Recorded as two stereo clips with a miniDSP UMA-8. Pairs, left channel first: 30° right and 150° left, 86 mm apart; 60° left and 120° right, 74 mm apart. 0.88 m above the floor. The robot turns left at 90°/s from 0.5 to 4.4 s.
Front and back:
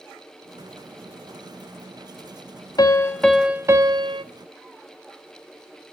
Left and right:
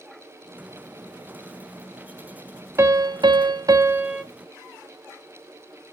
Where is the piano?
70° right, 0.6 m; by 4.2 s 155° left, 0.6 m.